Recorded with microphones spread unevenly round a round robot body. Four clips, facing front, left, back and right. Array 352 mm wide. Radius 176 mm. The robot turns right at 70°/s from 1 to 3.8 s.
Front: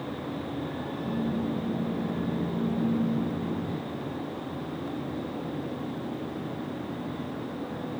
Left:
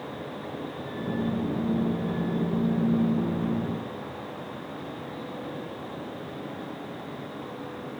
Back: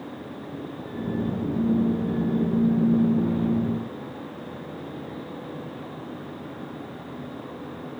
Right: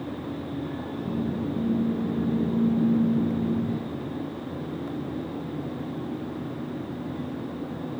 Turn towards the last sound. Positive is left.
No sound to turn to.